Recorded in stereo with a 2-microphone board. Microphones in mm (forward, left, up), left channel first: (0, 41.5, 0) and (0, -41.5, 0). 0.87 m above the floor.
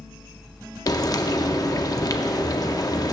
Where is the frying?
45° left (ahead or behind), 0.5 m.